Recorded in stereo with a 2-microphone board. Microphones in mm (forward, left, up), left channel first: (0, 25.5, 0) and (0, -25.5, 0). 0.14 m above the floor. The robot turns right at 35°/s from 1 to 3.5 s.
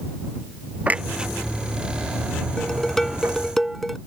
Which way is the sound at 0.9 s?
25° right (ahead or behind).